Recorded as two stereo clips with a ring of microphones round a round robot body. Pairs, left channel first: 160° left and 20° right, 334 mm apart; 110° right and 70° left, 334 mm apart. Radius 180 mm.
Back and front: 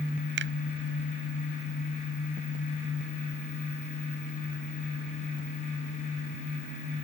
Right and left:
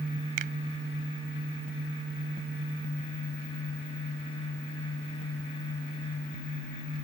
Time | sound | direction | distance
0.4 | a finger snap | 35° left | ?